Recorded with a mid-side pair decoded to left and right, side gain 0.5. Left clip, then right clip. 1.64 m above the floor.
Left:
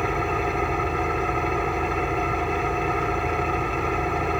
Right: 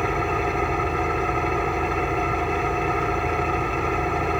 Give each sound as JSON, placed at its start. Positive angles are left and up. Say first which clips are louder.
{"t": 0.0, "sound": "an engine running", "louder": "right 1 dB", "azimuth_deg": -10}